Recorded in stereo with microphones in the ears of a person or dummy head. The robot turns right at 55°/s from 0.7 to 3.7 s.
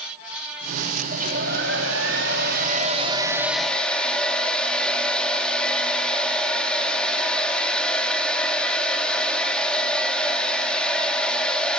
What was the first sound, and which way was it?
A hair dryer, 135° right.